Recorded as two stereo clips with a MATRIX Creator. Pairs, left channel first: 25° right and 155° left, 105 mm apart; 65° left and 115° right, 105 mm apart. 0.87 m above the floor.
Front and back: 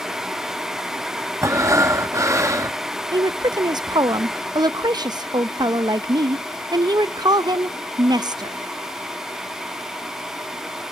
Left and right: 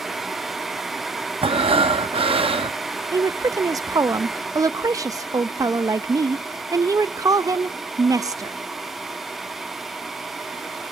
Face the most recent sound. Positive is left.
turn(degrees=-165)